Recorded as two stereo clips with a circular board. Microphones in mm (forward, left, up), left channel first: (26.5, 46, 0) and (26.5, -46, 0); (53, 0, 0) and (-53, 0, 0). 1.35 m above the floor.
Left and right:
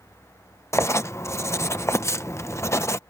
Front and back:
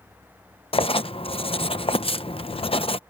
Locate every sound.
0.7 s writing: 30° left